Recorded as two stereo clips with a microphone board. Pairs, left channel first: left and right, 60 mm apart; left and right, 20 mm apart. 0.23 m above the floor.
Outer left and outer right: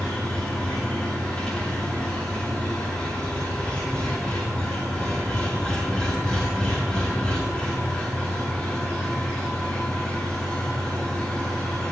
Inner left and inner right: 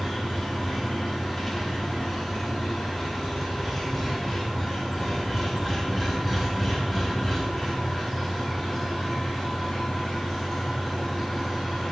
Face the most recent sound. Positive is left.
turn(degrees=15)  # may be behind; listen again after turning